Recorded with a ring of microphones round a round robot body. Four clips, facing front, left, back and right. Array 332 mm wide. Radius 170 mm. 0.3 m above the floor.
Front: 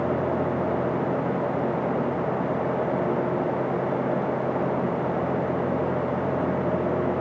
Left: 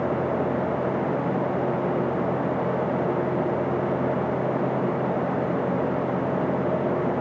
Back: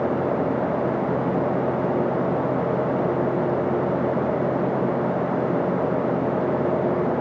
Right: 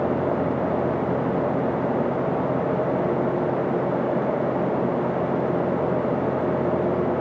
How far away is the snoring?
No snoring in this recording.